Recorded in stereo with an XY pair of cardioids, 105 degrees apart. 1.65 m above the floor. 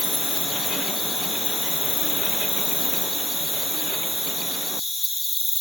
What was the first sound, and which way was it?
An insect, 15° left.